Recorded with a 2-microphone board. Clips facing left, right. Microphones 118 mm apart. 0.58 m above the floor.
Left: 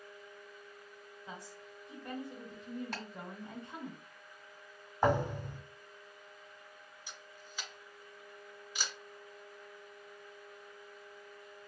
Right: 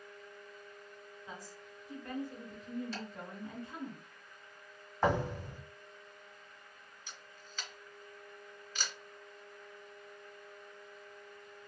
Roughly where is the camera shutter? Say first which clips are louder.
Left 1 dB; centre.